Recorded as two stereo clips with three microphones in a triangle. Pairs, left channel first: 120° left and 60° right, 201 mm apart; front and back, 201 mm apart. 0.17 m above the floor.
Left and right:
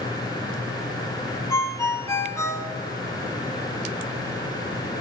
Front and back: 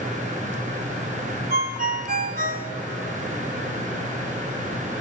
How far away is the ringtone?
About 0.8 m.